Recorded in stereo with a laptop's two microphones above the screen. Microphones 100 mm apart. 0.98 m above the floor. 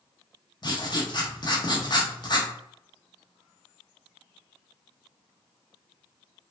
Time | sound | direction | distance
0.6 | writing | 45° left (ahead or behind) | 0.7 m